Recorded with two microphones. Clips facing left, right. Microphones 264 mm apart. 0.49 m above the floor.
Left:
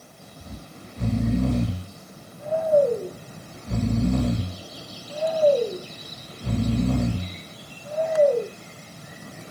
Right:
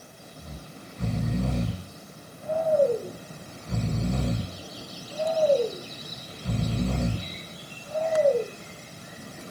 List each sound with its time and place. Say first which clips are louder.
0.4 s snoring: left 3 dB; 65° left (ahead or behind), 1.9 m